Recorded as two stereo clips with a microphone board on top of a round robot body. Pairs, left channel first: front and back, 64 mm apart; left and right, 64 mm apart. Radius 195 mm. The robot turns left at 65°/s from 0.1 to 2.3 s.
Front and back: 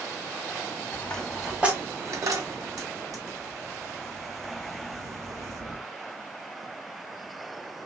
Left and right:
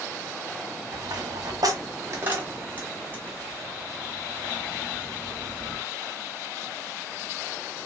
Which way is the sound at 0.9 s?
60° right.